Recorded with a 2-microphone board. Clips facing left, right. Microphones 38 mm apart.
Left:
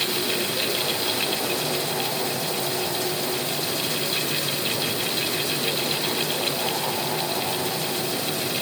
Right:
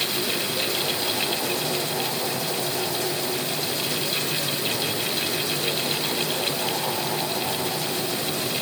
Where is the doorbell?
No doorbell in this recording.